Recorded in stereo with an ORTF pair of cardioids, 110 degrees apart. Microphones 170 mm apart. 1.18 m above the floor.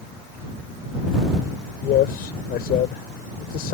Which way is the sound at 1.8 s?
65° left.